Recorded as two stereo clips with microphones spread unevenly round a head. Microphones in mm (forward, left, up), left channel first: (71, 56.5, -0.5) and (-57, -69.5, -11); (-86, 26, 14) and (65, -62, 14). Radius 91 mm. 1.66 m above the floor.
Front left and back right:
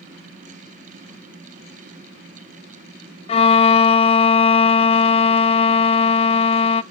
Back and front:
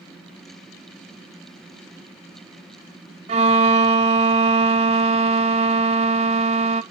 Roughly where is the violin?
Ahead.